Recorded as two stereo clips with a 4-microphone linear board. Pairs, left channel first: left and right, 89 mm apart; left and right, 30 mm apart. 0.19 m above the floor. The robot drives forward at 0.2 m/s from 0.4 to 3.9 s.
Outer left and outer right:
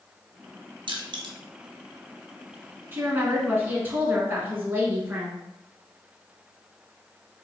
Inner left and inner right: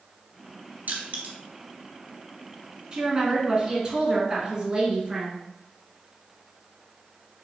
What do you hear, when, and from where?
0.9 s crushing: 70° right (ahead or behind), 1.1 m
2.9 s a woman speaking: 25° right (ahead or behind), 1.8 m; by 5.4 s 20° right (ahead or behind), 1.9 m